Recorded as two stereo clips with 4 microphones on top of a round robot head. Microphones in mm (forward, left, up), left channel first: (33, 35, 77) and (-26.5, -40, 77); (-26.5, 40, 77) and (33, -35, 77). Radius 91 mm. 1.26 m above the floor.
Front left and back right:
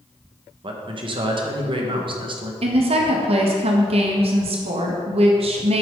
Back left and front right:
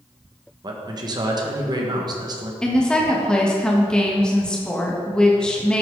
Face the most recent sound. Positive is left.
turn(degrees=-150)